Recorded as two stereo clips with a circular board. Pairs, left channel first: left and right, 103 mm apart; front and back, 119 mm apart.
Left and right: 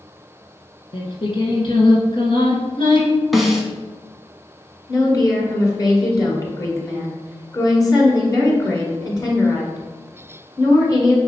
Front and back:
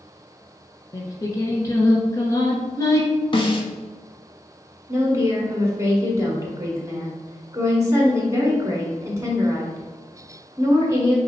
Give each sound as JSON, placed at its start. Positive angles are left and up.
{"t": 0.9, "sound": "singing", "azimuth_deg": 60, "distance_m": 1.0}
{"t": 3.3, "sound": "a snare drum", "azimuth_deg": 0, "distance_m": 0.7}
{"t": 4.9, "sound": "a woman speaking", "azimuth_deg": 125, "distance_m": 1.4}